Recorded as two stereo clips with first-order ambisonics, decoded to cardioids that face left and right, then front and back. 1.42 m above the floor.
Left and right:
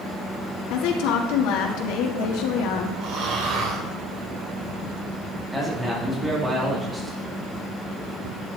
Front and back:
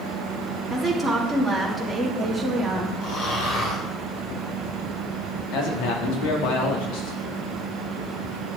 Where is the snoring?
40° right, 6 m.